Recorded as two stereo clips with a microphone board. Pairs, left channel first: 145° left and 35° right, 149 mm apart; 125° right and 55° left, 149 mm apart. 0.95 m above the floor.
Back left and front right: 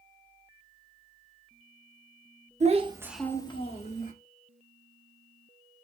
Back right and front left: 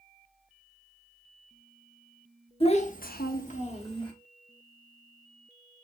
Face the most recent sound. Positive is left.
turn(degrees=180)